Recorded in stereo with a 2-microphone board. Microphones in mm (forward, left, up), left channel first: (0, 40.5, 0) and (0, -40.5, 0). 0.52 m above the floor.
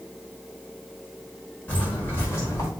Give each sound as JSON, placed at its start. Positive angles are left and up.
{"t": 1.7, "sound": "footsteps", "side_deg": 20, "distance_m": 4.0}